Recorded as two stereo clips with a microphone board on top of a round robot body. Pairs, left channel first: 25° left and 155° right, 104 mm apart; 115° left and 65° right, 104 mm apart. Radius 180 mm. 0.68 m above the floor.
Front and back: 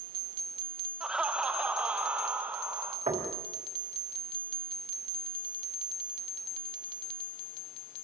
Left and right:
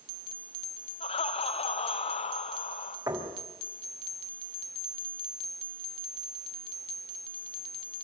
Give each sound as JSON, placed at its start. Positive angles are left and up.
{"t": 1.0, "sound": "laughter", "azimuth_deg": 120, "distance_m": 1.7}
{"t": 3.1, "sound": "knocking", "azimuth_deg": -120, "distance_m": 5.0}